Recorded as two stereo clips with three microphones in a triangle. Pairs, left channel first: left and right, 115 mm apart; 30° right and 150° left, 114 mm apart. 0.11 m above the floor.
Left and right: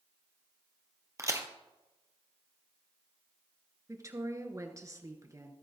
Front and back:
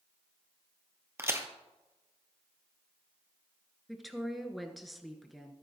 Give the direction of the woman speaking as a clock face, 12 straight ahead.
4 o'clock.